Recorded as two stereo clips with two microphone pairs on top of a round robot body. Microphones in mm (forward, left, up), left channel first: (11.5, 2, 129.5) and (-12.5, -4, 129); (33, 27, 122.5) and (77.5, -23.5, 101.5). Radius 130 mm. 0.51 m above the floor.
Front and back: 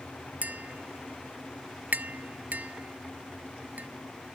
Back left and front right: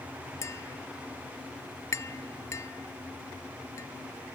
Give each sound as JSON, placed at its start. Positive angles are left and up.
{"t": 0.4, "sound": "tapping", "azimuth_deg": -175}